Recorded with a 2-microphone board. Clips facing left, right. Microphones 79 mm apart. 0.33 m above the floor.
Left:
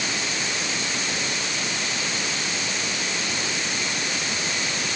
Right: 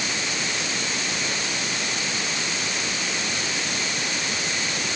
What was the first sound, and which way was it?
Only background noise.